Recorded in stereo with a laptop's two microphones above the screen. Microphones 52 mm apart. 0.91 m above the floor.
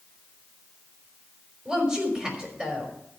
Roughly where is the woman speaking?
Centre.